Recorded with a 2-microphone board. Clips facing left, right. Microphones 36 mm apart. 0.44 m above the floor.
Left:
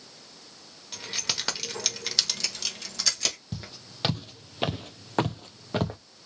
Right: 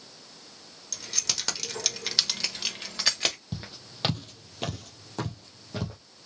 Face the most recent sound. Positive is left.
turn(degrees=50)  # may be behind; listen again after turning